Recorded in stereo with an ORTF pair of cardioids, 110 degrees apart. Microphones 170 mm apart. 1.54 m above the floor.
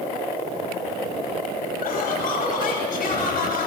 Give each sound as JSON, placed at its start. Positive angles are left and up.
{"t": 1.8, "sound": "laughter", "azimuth_deg": 55, "distance_m": 10.0}